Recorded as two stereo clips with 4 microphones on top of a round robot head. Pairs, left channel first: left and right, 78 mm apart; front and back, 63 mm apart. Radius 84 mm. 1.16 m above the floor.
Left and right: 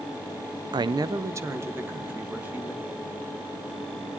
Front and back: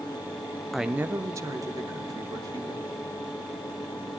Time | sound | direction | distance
0.7 | a man speaking | 85° right | 0.5 m